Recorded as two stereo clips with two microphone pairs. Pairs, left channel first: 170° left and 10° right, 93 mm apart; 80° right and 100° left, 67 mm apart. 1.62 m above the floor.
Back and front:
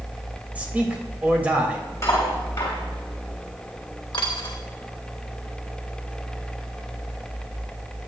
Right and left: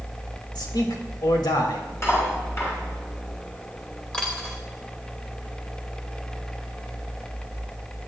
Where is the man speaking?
85° right, 2.5 m.